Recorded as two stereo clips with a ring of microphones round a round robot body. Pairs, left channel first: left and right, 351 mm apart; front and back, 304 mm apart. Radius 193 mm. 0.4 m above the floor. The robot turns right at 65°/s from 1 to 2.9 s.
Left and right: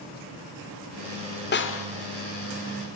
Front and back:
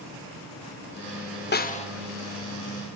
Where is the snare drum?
40° left, 1.5 m; by 1.9 s 65° left, 1.5 m.